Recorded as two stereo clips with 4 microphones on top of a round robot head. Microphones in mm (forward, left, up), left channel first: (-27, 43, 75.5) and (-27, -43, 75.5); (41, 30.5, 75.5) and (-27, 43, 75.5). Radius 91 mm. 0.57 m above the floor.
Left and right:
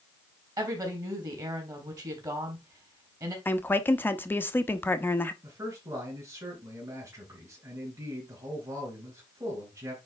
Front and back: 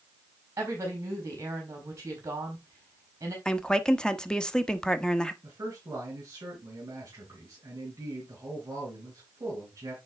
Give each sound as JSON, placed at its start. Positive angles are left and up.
{"t": 0.6, "sound": "a woman speaking", "azimuth_deg": -135, "distance_m": 4.0}
{"t": 3.5, "sound": "a woman speaking", "azimuth_deg": 55, "distance_m": 1.1}
{"t": 5.4, "sound": "a man speaking", "azimuth_deg": -145, "distance_m": 3.5}